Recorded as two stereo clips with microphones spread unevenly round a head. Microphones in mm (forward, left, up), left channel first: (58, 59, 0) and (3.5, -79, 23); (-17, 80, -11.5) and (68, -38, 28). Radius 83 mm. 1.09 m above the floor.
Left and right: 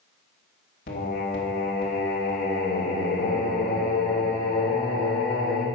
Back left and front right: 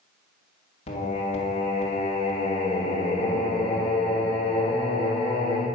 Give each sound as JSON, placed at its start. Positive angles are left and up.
{"t": 0.9, "sound": "singing", "azimuth_deg": 95, "distance_m": 1.7}